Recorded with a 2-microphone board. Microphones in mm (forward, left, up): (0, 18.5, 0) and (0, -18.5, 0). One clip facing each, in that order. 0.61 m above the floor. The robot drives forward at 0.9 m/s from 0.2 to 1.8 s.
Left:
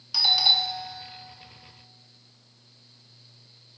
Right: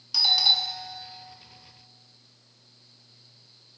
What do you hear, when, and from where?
0.1 s a doorbell: 10° left (ahead or behind), 1.1 m